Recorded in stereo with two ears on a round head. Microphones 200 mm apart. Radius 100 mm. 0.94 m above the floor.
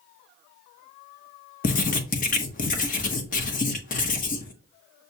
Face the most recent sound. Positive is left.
turn(degrees=40)  # may be behind; listen again after turning